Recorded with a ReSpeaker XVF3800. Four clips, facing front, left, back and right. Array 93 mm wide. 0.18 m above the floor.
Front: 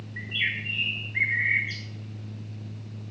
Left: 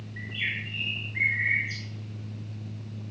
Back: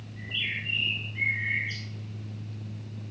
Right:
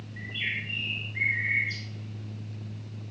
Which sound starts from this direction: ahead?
A bird, at 0.2 s.